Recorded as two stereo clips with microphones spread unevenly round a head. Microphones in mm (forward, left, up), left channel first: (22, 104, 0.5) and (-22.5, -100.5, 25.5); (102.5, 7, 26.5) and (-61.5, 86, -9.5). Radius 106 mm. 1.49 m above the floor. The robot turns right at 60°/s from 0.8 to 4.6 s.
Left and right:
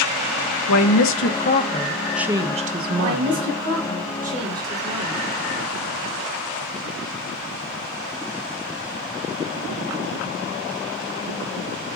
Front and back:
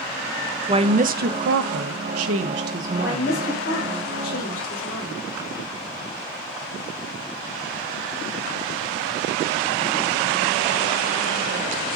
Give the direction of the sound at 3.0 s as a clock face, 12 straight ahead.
4 o'clock.